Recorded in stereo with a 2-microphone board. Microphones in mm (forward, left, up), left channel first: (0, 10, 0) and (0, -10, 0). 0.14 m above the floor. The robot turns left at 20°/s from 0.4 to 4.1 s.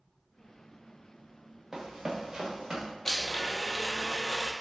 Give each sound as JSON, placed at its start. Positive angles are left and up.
{"t": 1.7, "sound": "running footsteps", "side_deg": -35, "distance_m": 1.0}
{"t": 3.0, "sound": "a blender", "side_deg": 15, "distance_m": 0.6}